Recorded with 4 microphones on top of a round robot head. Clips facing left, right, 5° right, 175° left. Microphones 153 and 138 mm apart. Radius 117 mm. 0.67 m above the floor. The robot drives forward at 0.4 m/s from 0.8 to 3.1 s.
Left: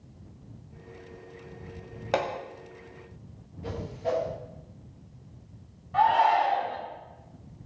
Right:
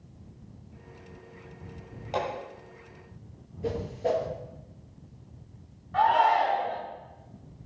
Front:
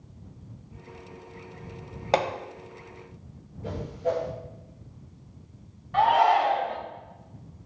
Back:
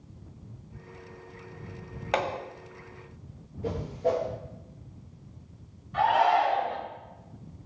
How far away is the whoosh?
About 3 m.